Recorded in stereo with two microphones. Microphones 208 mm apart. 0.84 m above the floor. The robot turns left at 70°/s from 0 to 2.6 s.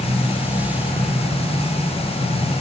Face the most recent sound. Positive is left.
No sound to turn to.